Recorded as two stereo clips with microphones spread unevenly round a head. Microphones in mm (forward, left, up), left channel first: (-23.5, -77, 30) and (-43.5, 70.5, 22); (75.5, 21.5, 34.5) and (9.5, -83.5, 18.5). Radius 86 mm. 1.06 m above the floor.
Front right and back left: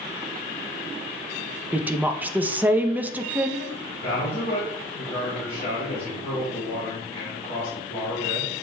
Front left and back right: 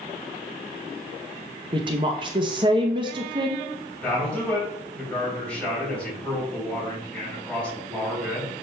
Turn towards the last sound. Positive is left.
turn(degrees=-25)